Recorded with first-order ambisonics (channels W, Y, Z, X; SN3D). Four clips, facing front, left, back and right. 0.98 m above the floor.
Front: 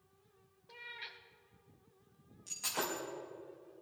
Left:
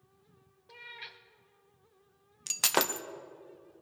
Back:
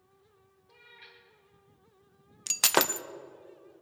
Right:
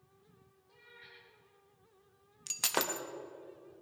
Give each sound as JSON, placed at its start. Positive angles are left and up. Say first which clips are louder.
{"t": 0.7, "sound": "a cat meowing", "louder": "left 10 dB, front 6 dB", "azimuth_deg": 65, "distance_m": 1.2}
{"t": 2.5, "sound": "breaking glass", "louder": "left 5 dB, back 12 dB", "azimuth_deg": 165, "distance_m": 0.6}